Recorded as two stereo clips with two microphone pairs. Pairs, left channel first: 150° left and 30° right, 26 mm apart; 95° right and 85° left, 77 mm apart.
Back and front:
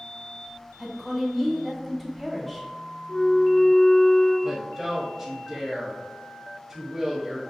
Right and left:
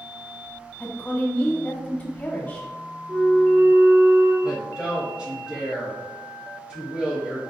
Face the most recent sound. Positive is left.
turn(degrees=30)